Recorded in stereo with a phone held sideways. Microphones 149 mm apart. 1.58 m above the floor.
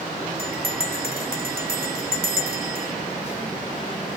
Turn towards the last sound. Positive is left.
turn(degrees=-85)